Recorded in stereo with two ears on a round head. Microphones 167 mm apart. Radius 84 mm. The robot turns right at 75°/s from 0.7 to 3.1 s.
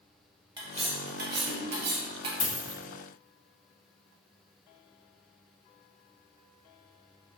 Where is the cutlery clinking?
150° right, 0.7 m; by 2.3 s 30° right, 0.7 m.